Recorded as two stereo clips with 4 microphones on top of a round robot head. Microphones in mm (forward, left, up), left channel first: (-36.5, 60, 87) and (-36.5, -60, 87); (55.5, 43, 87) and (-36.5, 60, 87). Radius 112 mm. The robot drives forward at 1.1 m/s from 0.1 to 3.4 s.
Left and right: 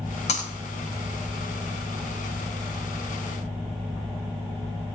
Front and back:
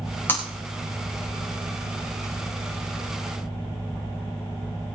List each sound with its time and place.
0.3 s breaking glass: 55° left, 7.5 m; by 0.5 s 60° left, 7 m